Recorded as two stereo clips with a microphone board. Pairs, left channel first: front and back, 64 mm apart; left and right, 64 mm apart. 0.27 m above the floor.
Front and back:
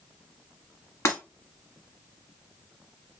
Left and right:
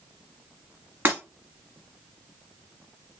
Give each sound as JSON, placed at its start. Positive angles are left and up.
{"t": 1.1, "sound": "breaking glass", "azimuth_deg": -30, "distance_m": 1.2}